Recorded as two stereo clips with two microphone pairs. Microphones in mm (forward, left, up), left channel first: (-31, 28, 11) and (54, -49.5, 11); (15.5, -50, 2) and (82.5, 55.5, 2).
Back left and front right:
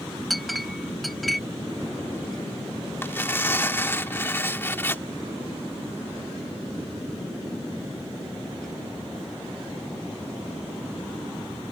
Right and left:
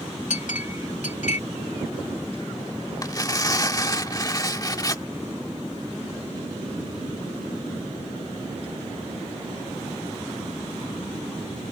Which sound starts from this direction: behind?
Tearing paper, at 3.0 s.